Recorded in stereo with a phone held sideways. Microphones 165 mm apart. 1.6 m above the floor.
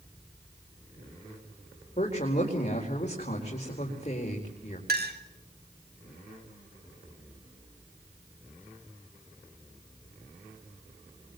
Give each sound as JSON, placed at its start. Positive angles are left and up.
{"t": 2.0, "sound": "a woman speaking", "side_deg": 45, "distance_m": 4.5}
{"t": 4.9, "sound": "a clink", "side_deg": -75, "distance_m": 3.0}